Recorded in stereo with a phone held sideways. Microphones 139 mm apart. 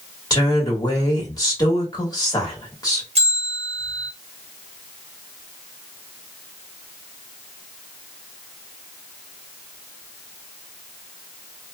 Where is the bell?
50° right (ahead or behind), 1.0 m.